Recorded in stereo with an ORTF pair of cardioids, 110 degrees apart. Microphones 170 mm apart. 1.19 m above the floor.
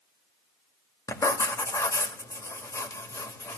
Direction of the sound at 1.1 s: 20° left.